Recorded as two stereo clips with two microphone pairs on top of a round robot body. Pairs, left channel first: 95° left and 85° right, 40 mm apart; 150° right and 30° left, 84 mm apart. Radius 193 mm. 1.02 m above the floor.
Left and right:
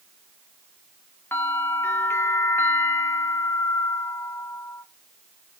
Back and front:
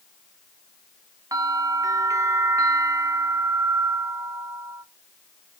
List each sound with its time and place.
1.3 s a bell: 80° left, 1.6 m